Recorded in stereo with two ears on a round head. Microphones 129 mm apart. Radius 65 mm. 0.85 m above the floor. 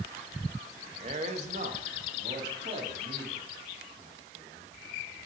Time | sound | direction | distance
1.0 | a man speaking | 45° right (ahead or behind) | 0.9 m